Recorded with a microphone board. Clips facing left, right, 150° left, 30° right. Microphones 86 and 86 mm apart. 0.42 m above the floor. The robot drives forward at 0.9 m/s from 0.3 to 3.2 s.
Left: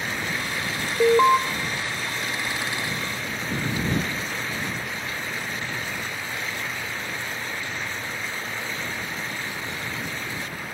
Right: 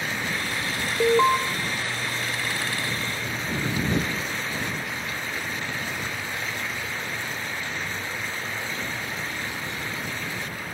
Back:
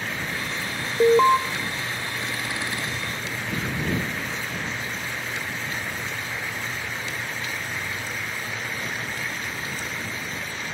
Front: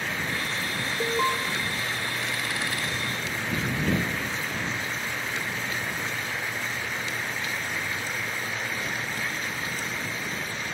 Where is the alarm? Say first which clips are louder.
Left 3 dB, back 11 dB; 165° left, 1.0 m; by 1.4 s 170° left, 1.3 m.